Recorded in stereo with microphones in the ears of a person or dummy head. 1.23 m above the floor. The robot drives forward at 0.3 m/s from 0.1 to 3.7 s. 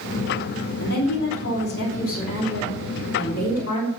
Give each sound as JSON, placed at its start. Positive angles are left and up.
{"t": 0.8, "sound": "a woman speaking", "side_deg": 60, "distance_m": 3.0}